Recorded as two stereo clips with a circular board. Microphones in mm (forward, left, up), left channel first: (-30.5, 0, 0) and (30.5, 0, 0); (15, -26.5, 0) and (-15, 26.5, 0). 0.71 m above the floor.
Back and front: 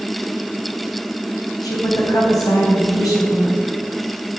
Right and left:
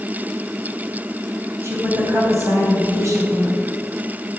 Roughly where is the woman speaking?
Behind.